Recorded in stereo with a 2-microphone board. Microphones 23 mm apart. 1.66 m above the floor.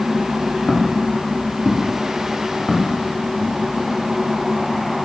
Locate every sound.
0.7 s footsteps: 55° left (ahead or behind), 4 m; by 3.5 s 75° left (ahead or behind), 6 m